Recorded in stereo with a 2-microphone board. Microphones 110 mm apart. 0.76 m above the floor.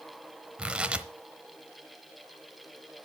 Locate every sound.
0.6 s tearing paper: 10° right (ahead or behind), 0.9 m